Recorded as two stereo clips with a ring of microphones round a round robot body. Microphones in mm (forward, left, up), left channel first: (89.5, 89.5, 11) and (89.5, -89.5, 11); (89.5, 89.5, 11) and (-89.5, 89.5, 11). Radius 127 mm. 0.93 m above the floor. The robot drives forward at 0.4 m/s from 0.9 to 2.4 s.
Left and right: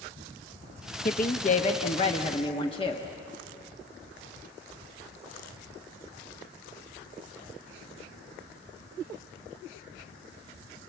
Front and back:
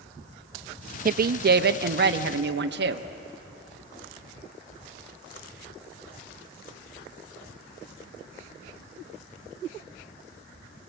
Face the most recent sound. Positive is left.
turn(degrees=160)